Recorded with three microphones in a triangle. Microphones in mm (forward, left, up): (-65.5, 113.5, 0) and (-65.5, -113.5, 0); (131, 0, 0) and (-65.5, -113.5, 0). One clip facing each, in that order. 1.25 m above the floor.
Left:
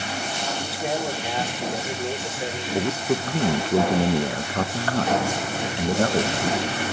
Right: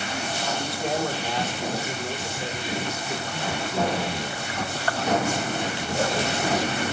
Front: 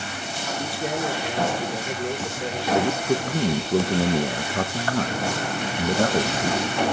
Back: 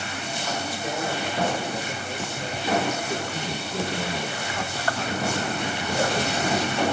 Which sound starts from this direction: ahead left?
A man speaking, at 2.7 s.